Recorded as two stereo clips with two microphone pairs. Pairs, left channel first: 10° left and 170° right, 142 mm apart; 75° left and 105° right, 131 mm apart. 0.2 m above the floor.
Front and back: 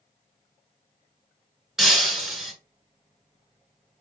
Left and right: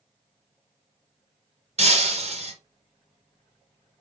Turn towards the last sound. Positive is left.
turn(degrees=-80)